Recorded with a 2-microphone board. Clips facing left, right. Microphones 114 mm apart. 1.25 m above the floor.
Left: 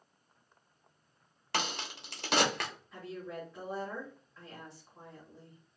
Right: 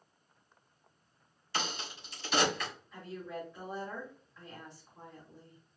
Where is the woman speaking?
5° left (ahead or behind), 1.7 m.